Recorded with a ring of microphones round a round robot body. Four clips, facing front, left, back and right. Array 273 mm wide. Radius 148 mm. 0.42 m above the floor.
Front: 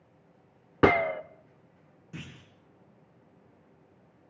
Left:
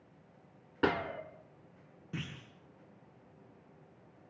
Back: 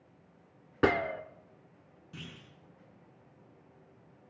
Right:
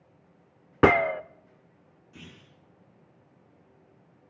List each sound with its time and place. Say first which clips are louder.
0.8 s a gunshot: right 12 dB, front 5 dB; 60° right, 0.8 m
2.1 s a clunk: left 6 dB, front 3 dB; 75° left, 6 m